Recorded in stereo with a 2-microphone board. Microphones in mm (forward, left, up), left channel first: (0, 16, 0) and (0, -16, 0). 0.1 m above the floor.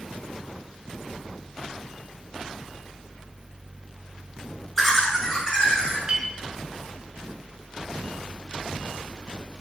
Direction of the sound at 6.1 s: 20° right (ahead or behind).